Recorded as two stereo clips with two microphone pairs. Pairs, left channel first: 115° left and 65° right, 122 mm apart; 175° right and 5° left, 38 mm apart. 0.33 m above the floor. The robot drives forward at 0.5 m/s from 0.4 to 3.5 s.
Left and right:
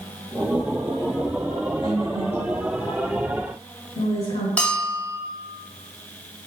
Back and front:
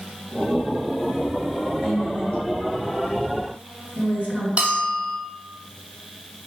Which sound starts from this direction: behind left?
A woman speaking, at 1.8 s.